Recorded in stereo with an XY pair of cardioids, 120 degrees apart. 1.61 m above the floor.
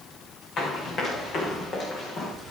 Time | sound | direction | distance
0.6 | running footsteps | 65° left | 5.5 m